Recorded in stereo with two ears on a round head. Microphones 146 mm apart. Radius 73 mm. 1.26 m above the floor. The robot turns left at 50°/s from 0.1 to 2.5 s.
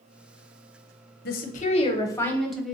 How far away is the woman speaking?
About 0.6 m.